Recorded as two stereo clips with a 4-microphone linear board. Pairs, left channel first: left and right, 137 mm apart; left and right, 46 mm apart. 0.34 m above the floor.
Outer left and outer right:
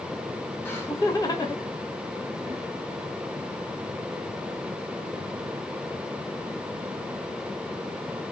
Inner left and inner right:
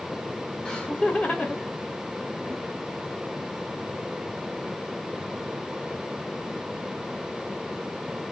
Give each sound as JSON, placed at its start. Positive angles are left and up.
{"t": 0.7, "sound": "laughter", "side_deg": 15, "distance_m": 1.5}